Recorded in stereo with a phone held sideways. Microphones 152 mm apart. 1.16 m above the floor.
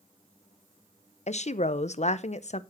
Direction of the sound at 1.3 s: 50° left (ahead or behind).